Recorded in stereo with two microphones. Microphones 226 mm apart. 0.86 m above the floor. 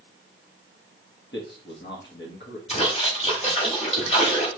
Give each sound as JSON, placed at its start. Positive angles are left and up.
{"t": 1.3, "sound": "a man speaking", "side_deg": 50, "distance_m": 1.3}
{"t": 2.7, "sound": "a splash", "side_deg": 25, "distance_m": 3.0}